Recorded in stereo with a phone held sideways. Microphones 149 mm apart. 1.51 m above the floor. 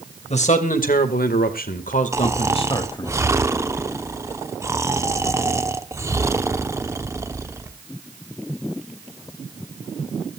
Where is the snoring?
20° right (ahead or behind), 1.0 m.